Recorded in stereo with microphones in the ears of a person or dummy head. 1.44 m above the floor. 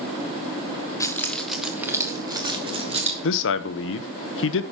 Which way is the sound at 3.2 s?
70° left (ahead or behind).